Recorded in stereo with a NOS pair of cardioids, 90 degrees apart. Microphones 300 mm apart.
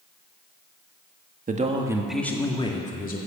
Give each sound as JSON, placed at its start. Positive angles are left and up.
{"t": 1.5, "sound": "a man speaking", "azimuth_deg": -30, "distance_m": 1.9}